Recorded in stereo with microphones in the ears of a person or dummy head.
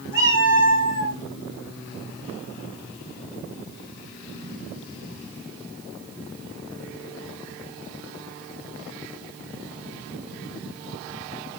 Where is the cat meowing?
45° left (ahead or behind), 4.5 m.